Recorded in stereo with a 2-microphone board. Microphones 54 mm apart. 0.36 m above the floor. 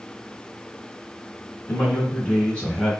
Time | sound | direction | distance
1.7 | a man speaking | 30° left (ahead or behind) | 2.5 m